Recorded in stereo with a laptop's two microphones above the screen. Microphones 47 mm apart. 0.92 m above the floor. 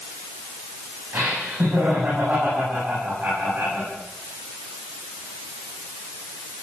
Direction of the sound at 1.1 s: 45° right (ahead or behind).